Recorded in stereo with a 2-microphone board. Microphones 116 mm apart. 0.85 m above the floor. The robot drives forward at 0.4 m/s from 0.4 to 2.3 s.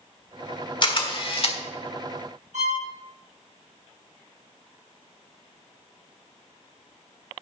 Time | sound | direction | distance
0.8 | a camera shutter | 45° left (ahead or behind) | 1.5 m
2.5 | a violin | 85° right | 4 m